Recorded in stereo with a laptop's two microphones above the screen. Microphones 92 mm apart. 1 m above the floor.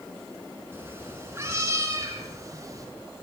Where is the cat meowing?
25° right (ahead or behind), 6 m; by 2.9 s 35° right (ahead or behind), 7 m.